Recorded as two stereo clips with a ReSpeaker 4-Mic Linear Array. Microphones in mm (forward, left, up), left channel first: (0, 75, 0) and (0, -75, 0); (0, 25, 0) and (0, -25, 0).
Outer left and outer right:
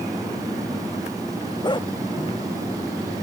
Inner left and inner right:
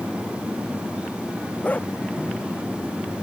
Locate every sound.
1.6 s a dog barking: 30° left (ahead or behind)